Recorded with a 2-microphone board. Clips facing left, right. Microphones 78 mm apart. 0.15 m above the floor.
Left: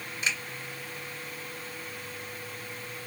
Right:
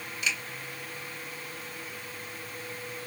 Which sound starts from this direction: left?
A finger snap, at 0.2 s.